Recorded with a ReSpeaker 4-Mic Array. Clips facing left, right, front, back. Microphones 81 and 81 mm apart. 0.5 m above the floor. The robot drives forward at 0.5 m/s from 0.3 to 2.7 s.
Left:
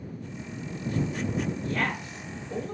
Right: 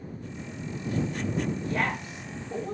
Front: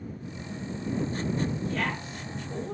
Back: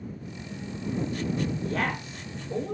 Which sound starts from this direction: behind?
A woman speaking, at 1.6 s.